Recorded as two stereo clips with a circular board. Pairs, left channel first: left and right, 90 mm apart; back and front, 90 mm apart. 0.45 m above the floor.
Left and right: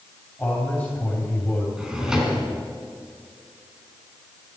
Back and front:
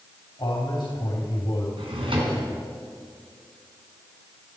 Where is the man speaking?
160° left, 3 m.